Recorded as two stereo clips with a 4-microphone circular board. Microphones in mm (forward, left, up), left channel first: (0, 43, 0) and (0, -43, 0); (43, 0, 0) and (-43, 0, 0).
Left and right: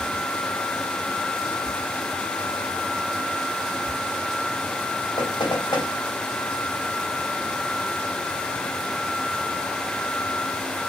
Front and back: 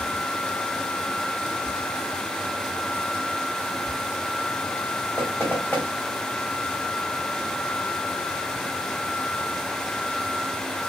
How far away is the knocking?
About 3 m.